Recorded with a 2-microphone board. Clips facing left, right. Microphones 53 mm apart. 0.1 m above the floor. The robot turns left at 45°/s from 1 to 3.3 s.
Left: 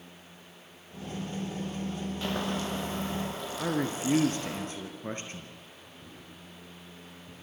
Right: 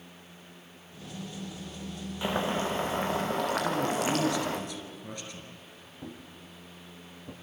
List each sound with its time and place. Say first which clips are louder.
2.2 s boiling: right 4 dB; 15° right, 3.5 m; by 4.6 s 65° right, 3.5 m
3.6 s a man speaking: right 2 dB; 35° left (ahead or behind), 2 m
6.0 s a thud: right 7 dB; 65° right (ahead or behind), 3.5 m